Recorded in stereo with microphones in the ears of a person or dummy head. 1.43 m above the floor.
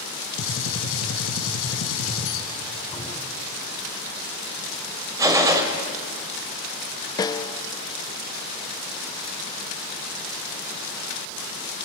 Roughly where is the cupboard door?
Centre.